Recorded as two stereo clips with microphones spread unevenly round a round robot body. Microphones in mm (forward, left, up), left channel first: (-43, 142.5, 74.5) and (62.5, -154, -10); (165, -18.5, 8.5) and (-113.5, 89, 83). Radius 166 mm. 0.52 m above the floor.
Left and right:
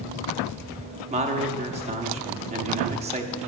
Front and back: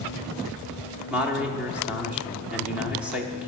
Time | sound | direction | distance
1.1 | a man speaking | 100° right | 0.8 m